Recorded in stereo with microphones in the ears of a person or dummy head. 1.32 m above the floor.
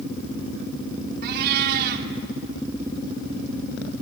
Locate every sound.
1.2 s a cat meowing: 55° right (ahead or behind), 1.6 m